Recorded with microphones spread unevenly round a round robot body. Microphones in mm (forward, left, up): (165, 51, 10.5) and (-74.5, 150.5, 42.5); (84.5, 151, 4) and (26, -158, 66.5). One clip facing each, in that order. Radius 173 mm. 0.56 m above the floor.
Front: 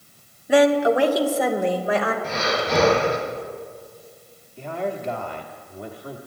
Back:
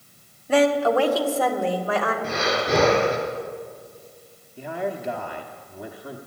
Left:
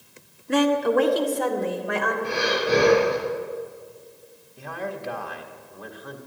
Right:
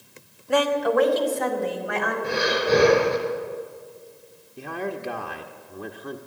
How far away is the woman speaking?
About 1.5 m.